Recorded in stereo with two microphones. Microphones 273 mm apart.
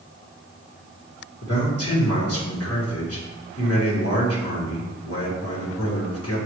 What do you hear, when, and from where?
1.4 s a man speaking: 60° left (ahead or behind), 1.4 m